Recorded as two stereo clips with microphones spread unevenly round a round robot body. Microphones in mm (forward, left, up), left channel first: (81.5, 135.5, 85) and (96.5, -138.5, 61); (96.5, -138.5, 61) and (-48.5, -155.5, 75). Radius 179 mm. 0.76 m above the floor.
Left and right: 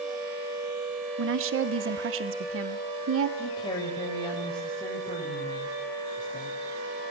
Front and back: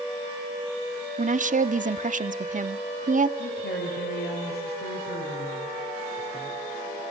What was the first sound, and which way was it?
A woman speaking, 130° right.